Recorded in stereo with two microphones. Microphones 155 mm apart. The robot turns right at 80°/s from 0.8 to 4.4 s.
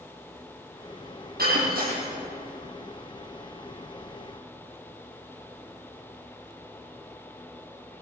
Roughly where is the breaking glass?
Right.